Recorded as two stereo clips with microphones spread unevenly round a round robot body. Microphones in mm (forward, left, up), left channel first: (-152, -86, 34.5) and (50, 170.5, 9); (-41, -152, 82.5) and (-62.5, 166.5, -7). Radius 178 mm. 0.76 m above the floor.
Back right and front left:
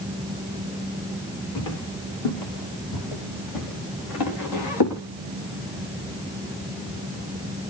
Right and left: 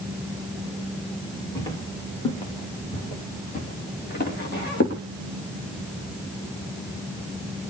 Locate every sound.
1.6 s footsteps: 165° right, 6 m; by 5.0 s 140° right, 5.5 m